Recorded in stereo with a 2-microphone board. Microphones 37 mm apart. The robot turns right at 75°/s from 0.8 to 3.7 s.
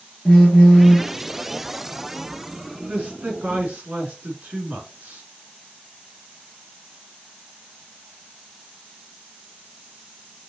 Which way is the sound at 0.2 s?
20° left (ahead or behind).